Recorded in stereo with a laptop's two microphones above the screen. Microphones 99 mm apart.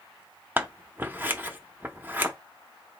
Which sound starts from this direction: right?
Scissors, at 0.6 s.